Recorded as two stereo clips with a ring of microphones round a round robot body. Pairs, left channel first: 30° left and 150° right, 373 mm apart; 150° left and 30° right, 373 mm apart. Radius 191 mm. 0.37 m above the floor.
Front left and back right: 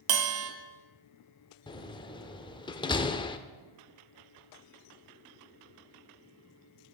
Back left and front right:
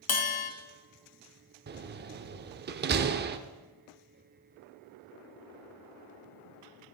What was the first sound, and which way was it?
A bell, 165° right.